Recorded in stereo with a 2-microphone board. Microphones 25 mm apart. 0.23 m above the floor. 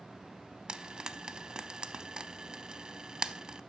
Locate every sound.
0.7 s frying: 35° right (ahead or behind), 0.5 m